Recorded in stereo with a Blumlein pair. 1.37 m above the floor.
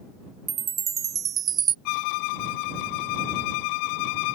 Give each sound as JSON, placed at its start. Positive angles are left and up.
{"t": 0.5, "sound": "a chime", "azimuth_deg": -25}
{"t": 1.9, "sound": "a violin", "azimuth_deg": 45}